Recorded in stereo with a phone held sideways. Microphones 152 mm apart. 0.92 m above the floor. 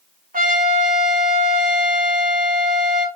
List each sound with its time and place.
0.3 s a trumpet: 65° right (ahead or behind), 1.3 m